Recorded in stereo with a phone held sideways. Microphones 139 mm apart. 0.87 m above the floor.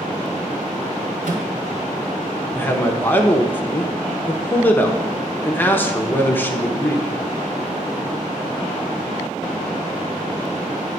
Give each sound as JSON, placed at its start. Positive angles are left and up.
{"t": 1.2, "sound": "a microwave", "side_deg": -65, "distance_m": 1.8}
{"t": 2.5, "sound": "a man speaking", "side_deg": 15, "distance_m": 0.8}